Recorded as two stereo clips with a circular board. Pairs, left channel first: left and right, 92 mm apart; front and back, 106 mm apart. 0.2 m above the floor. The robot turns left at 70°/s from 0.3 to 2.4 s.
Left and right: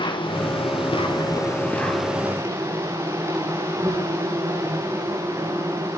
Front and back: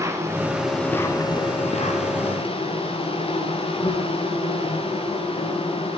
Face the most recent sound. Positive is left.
turn(degrees=-30)